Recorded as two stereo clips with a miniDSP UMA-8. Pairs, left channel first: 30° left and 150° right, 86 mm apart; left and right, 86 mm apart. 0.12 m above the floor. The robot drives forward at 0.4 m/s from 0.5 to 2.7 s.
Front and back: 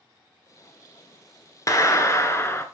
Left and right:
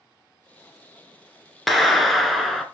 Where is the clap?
Straight ahead, 1.2 m.